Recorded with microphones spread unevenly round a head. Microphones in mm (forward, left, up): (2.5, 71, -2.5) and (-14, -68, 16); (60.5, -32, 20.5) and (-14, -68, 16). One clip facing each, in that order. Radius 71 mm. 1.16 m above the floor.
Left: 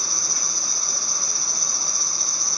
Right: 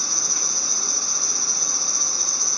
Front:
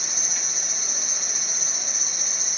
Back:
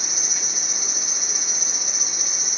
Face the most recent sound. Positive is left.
turn(degrees=-75)